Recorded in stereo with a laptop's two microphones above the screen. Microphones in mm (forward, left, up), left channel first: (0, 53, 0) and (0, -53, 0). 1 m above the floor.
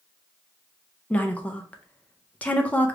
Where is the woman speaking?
15° left (ahead or behind), 0.5 m.